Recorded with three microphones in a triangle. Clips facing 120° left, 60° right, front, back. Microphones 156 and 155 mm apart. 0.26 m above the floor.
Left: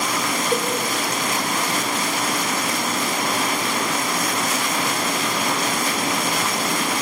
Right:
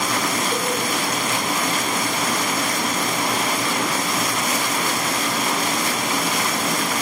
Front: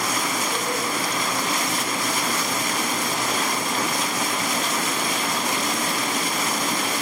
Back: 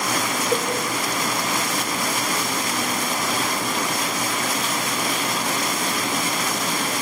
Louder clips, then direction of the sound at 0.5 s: Left 2 dB, back 6 dB; straight behind.